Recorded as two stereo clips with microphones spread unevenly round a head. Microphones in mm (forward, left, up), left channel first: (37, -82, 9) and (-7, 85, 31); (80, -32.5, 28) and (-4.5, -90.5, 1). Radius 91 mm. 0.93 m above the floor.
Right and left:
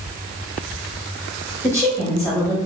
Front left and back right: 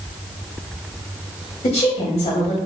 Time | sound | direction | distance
1.6 | a woman speaking | 5° left | 1.8 m